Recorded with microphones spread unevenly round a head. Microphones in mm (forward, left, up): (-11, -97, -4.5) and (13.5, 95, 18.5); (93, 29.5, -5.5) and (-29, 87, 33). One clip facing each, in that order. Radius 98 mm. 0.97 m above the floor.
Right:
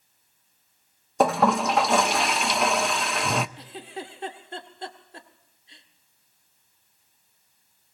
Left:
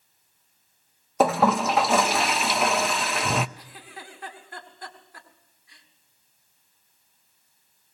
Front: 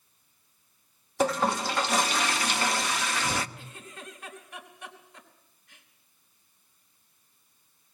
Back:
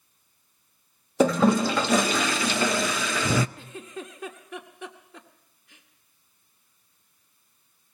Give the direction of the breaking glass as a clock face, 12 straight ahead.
No breaking glass in this recording.